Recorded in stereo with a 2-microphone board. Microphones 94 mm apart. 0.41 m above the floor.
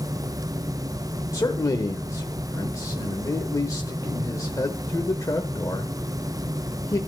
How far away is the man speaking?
About 1.0 m.